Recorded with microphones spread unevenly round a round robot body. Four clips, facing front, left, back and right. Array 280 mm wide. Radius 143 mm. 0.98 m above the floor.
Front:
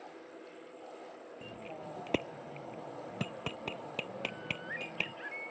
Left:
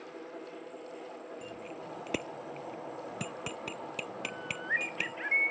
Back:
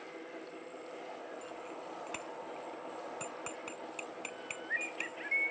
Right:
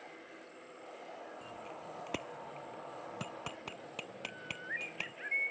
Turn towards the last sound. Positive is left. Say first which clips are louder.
# left 7 dB, front 2 dB
turn(degrees=45)